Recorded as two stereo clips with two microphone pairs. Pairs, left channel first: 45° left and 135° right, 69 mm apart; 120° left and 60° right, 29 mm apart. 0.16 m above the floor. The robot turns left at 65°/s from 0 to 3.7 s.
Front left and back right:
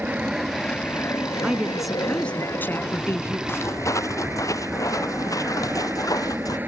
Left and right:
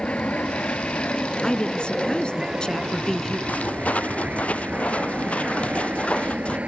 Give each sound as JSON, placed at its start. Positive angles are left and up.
{"t": 0.0, "sound": "an aircraft", "azimuth_deg": 160}
{"t": 1.4, "sound": "a woman speaking", "azimuth_deg": 160}
{"t": 3.5, "sound": "footsteps", "azimuth_deg": 100}